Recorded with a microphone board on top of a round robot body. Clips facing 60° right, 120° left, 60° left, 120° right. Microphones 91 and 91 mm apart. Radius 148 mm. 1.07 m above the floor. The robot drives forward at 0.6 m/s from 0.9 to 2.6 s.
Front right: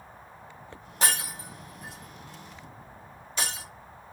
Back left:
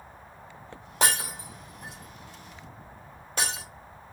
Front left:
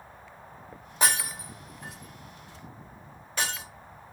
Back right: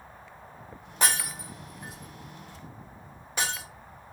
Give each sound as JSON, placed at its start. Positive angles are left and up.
{"t": 1.0, "sound": "breaking glass", "azimuth_deg": 140, "distance_m": 0.8}